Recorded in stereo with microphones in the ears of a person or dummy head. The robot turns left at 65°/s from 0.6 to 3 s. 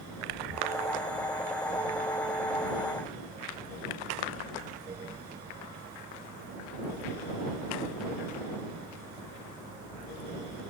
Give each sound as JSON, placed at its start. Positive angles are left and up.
{"t": 0.3, "sound": "breathing", "side_deg": -75}